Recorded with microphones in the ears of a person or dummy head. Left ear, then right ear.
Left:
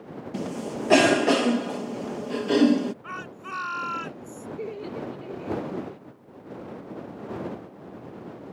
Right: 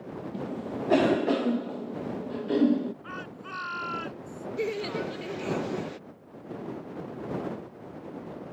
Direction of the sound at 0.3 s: 55° left (ahead or behind).